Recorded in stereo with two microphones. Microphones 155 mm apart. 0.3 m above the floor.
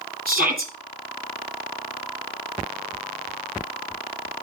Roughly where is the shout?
Right.